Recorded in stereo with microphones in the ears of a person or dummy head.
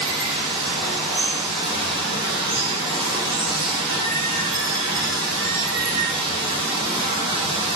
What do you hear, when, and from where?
0.0 s running water: 25° right (ahead or behind), 1.2 m